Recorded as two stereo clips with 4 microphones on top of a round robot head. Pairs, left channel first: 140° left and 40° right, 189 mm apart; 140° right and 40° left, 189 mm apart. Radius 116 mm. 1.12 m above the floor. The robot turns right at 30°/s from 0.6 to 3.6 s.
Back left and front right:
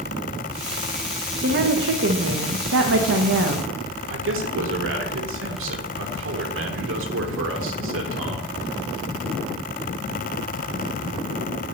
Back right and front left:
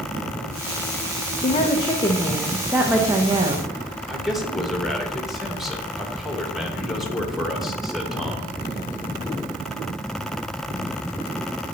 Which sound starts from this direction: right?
A woman speaking, at 1.4 s.